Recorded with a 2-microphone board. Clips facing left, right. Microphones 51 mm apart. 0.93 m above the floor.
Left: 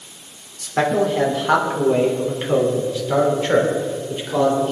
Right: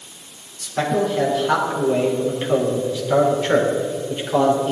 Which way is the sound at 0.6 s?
35° left (ahead or behind).